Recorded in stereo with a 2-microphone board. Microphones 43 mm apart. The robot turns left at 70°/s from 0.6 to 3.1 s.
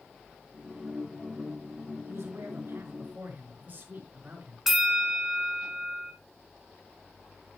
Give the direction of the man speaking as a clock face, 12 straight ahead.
2 o'clock.